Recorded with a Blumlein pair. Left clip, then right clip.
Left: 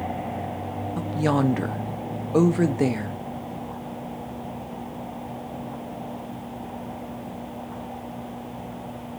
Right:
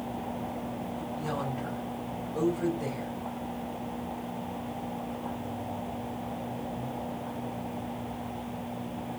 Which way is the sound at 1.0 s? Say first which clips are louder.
Left 12 dB; 40° left.